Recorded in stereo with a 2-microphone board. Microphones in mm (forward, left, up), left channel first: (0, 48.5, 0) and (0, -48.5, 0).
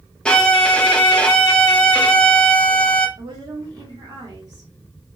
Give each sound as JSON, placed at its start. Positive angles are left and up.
{"t": 0.2, "sound": "a violin", "side_deg": 10, "distance_m": 0.5}
{"t": 3.2, "sound": "a woman speaking", "side_deg": -45, "distance_m": 1.3}